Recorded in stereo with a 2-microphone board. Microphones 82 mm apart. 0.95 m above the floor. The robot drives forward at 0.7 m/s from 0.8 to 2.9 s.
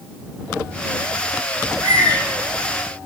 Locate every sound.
1.6 s a bird: 55° right (ahead or behind), 4.5 m; by 2.8 s 65° right (ahead or behind), 4.5 m